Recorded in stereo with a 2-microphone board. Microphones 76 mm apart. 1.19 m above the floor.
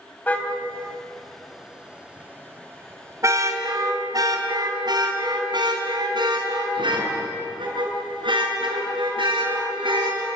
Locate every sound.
0.3 s a car horn: 20° left (ahead or behind), 3 m; by 10.3 s 80° right, 9 m